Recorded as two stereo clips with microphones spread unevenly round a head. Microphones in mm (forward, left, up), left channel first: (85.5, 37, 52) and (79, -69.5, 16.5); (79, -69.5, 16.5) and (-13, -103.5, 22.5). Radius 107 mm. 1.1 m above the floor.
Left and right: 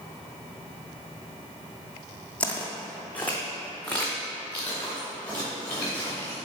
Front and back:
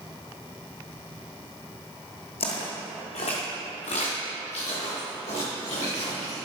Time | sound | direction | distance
2.4 | footsteps | 20° left | 2 m